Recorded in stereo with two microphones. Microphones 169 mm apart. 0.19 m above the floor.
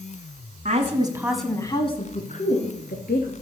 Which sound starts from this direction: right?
A woman speaking, at 0.7 s.